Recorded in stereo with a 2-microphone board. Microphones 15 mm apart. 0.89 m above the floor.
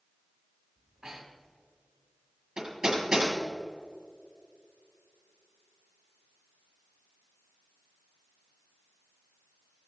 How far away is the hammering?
About 6.5 m.